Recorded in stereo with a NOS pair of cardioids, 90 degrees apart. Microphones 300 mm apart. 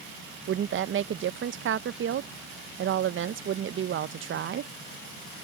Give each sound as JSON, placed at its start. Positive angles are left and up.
{"t": 0.5, "sound": "a woman speaking", "azimuth_deg": -40}